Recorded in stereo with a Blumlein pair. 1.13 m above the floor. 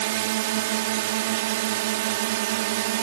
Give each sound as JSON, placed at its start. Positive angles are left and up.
{"t": 0.0, "sound": "a drone", "azimuth_deg": -50}